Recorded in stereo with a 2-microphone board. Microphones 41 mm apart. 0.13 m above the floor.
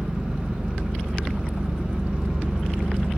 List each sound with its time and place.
0.0 s an engine running: 25° right (ahead or behind), 2.5 m